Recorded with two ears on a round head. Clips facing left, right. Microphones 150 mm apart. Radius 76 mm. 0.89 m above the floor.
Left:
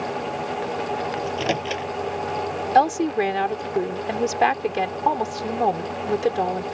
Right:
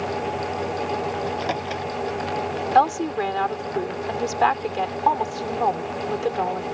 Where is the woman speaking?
20° left (ahead or behind).